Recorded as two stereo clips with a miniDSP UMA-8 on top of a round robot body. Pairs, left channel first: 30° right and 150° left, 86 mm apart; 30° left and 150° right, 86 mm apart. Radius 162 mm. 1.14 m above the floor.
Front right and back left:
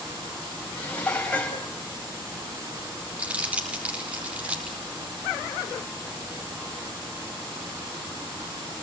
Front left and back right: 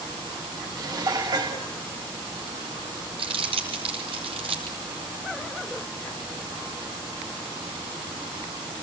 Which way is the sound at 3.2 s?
135° right.